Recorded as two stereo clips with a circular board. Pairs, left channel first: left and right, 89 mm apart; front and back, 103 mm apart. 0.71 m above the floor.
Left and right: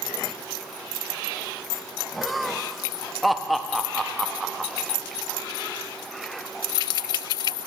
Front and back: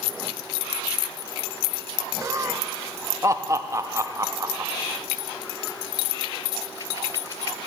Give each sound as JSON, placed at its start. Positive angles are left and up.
{"t": 2.2, "sound": "laughter", "azimuth_deg": 180, "distance_m": 0.6}